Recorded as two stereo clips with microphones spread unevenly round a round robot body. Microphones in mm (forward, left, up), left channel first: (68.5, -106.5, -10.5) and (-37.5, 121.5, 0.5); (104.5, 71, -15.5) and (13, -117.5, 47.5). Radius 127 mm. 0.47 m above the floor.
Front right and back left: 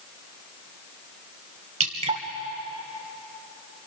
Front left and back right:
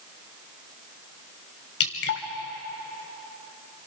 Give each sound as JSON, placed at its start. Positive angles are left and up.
{"t": 1.8, "sound": "dripping", "azimuth_deg": 50, "distance_m": 2.5}